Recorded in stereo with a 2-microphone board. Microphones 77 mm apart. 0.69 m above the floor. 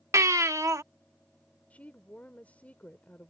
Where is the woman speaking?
20° left (ahead or behind).